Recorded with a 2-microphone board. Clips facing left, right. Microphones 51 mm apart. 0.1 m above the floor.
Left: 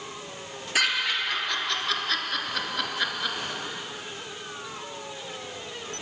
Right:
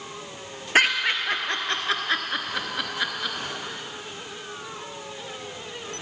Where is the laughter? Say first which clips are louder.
Right 5 dB; 40° right (ahead or behind), 1.6 m; by 3.4 s centre (ahead or behind), 1.2 m.